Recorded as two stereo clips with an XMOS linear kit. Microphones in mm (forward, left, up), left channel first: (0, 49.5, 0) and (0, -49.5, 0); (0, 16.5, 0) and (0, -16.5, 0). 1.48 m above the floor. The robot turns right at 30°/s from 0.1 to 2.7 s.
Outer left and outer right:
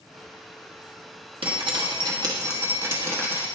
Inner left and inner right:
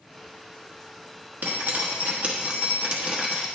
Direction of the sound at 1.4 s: 65° right.